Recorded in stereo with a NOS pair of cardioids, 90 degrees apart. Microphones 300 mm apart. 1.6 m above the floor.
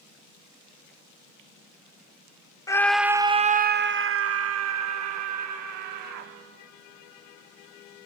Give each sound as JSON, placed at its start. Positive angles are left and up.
{"t": 2.7, "sound": "a scream", "azimuth_deg": 10, "distance_m": 1.0}